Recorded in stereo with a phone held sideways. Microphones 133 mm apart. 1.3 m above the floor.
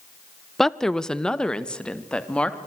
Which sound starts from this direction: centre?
A woman speaking, at 0.6 s.